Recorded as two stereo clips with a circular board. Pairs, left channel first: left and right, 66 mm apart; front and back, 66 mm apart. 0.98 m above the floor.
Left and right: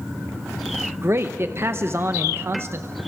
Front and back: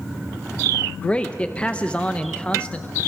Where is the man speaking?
65° right, 0.8 m.